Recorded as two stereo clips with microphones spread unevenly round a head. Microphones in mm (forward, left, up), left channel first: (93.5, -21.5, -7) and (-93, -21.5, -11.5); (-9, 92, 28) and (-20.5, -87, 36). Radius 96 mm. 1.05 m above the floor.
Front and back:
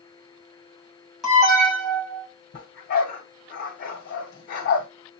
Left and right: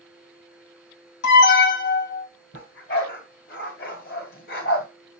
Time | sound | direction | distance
1.2 | an alarm | 90° left | 3 m
2.5 | a dog barking | 45° left | 2 m